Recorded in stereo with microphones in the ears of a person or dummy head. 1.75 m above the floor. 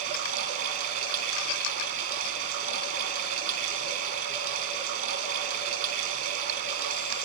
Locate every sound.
0.0 s running water: 40° right (ahead or behind), 5.5 m